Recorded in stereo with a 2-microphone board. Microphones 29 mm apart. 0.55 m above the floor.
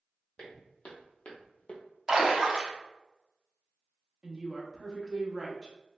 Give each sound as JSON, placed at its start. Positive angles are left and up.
{"t": 0.4, "sound": "footsteps", "side_deg": 30, "distance_m": 1.2}
{"t": 2.1, "sound": "a splash", "side_deg": -20, "distance_m": 0.5}
{"t": 4.2, "sound": "a woman speaking", "side_deg": -20, "distance_m": 0.6}